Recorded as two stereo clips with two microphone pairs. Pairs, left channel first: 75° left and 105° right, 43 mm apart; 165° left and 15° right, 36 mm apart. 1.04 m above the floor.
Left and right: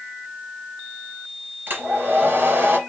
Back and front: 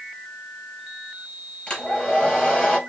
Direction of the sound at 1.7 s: 145° right.